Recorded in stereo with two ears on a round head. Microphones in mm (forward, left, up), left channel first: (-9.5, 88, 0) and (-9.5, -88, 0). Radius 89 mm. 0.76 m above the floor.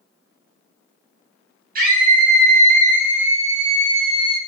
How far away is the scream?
About 4.5 m.